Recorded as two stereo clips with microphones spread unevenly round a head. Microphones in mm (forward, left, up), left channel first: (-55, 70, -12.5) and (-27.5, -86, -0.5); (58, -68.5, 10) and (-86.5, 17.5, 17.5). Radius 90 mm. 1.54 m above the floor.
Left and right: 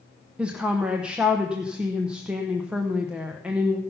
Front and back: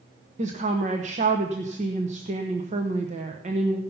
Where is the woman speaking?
165° right, 1.0 m.